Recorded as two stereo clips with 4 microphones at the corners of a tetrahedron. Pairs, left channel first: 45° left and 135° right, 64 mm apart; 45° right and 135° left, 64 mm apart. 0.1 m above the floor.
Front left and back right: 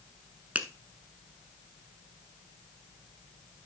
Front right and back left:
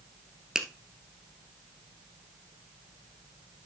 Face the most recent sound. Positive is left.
turn(degrees=-160)